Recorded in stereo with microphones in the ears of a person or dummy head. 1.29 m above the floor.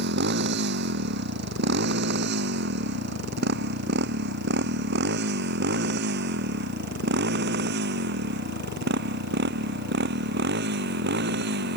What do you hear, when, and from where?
0.0 s a motorcycle: 55° right (ahead or behind)